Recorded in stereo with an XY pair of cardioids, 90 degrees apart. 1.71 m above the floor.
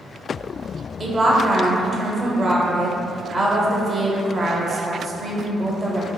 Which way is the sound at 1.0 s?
40° right.